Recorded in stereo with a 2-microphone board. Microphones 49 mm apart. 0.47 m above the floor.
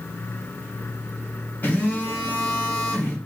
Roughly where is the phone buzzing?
Left.